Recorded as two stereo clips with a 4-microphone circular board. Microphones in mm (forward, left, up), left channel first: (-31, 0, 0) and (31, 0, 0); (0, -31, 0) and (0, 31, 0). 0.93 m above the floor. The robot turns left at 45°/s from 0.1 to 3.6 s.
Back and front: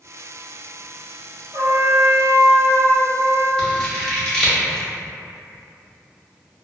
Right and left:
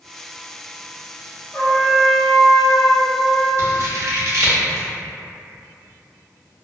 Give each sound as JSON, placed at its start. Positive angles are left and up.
{"t": 1.5, "sound": "a trumpet", "azimuth_deg": -25, "distance_m": 0.6}
{"t": 3.6, "sound": "scissors", "azimuth_deg": 105, "distance_m": 0.7}